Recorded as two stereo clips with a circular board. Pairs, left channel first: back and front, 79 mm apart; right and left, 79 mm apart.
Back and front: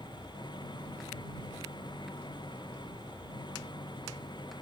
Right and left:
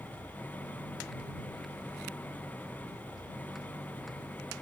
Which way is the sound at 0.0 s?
160° right.